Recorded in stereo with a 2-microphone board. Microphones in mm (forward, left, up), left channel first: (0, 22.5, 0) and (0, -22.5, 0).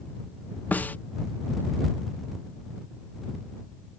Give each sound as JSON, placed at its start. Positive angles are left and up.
{"t": 0.7, "sound": "a snare drum", "side_deg": 40}